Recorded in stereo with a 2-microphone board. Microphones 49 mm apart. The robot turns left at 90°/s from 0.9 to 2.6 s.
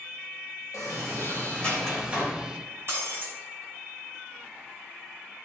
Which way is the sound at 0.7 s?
85° left.